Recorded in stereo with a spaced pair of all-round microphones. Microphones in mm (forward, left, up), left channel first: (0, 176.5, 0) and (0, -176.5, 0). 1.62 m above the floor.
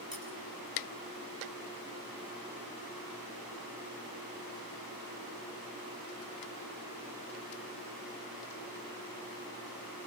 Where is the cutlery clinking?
75° right (ahead or behind), 7 m.